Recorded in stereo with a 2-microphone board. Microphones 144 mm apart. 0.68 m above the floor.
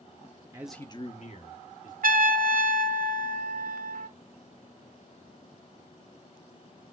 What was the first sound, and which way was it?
A man speaking, 25° right (ahead or behind).